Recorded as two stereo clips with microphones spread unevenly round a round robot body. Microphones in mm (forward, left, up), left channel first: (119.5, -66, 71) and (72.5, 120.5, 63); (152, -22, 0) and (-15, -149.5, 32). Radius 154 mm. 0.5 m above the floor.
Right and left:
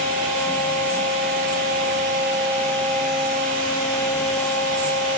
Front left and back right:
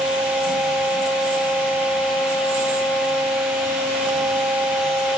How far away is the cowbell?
No cowbell in this recording.